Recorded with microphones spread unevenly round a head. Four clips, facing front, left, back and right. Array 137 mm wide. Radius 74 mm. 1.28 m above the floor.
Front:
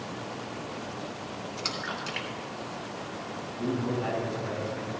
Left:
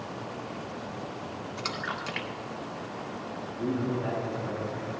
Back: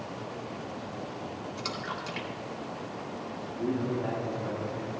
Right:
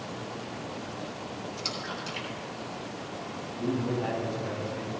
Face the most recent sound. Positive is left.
turn(degrees=-35)